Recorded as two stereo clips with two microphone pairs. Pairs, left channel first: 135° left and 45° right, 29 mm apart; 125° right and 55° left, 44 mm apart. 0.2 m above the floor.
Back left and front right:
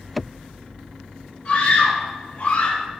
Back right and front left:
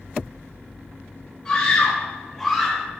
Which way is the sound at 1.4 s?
170° left.